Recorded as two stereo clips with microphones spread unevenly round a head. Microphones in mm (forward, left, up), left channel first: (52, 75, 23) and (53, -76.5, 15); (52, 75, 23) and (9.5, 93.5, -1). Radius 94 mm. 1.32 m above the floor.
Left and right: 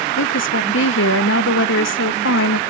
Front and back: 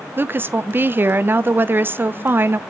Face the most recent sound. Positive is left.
turn(degrees=105)